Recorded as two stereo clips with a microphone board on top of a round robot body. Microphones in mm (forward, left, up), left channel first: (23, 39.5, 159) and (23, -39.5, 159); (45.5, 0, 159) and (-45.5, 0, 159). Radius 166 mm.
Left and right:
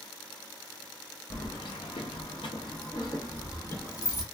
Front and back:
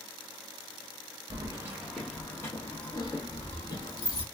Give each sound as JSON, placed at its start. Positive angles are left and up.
{"t": 1.3, "sound": "keys jangling", "azimuth_deg": 135, "distance_m": 0.5}